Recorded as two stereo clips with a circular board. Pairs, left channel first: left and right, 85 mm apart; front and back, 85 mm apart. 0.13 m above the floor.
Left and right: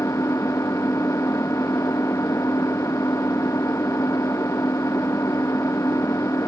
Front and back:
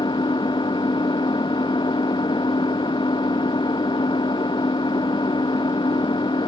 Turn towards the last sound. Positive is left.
turn(degrees=30)